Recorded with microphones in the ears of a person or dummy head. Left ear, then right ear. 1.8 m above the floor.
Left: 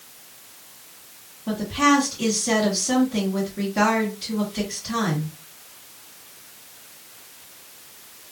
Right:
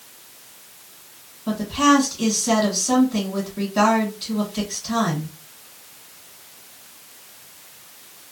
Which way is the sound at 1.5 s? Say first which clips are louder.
Right 2 dB; 30° right (ahead or behind).